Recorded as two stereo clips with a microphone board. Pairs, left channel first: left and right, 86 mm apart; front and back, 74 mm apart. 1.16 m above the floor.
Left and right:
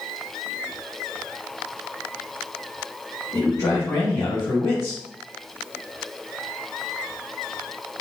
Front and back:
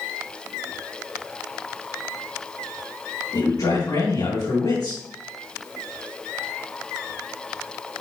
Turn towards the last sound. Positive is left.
turn(degrees=30)